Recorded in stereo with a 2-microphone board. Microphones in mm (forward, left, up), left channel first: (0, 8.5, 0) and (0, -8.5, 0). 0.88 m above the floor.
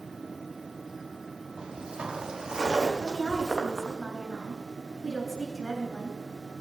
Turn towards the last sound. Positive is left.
turn(degrees=5)  # may be behind; listen again after turning